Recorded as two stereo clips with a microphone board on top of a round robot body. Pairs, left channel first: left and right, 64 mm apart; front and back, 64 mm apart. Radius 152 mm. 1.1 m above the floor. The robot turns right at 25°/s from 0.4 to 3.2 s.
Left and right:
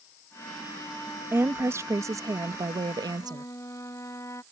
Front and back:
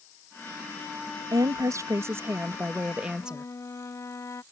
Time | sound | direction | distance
1.3 | a woman speaking | 150° right | ?
3.2 | a flute | 45° left | ?